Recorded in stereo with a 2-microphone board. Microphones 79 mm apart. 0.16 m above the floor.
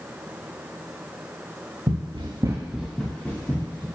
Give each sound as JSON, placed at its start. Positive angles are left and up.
{"t": 1.9, "sound": "running footsteps", "side_deg": -75, "distance_m": 1.1}